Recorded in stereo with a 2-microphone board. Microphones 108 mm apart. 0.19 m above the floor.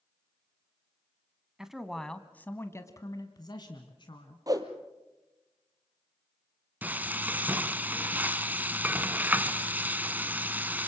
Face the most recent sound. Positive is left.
turn(degrees=-15)  # may be behind; listen again after turning